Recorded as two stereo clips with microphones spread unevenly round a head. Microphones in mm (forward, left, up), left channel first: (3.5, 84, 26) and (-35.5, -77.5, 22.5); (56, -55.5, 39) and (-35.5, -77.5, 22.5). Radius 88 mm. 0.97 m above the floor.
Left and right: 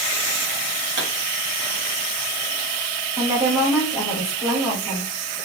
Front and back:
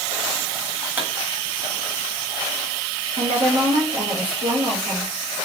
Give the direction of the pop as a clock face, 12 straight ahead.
3 o'clock.